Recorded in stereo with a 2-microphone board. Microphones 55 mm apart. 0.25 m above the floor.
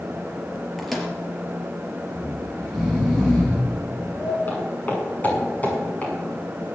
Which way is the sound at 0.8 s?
Centre (ahead or behind).